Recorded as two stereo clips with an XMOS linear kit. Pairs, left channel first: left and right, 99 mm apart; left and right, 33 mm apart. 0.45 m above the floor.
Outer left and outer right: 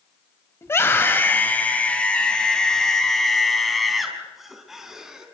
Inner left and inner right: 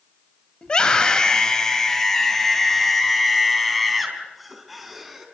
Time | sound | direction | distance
0.6 | a scream | 25° left (ahead or behind) | 2.5 m